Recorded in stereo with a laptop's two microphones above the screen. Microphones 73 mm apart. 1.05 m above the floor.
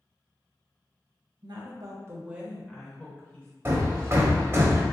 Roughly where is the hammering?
Right.